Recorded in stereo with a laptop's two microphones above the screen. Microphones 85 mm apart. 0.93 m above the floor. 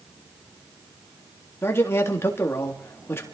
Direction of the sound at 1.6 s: 30° left (ahead or behind).